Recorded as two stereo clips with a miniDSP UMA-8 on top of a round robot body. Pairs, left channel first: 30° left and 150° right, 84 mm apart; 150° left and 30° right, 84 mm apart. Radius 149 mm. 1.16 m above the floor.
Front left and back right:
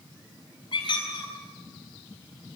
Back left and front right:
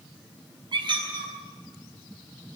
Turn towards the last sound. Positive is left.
turn(degrees=0)